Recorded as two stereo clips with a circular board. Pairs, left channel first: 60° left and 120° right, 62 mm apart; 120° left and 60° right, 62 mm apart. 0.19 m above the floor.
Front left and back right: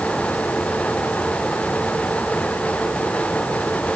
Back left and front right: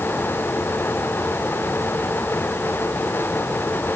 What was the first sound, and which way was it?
Only background noise.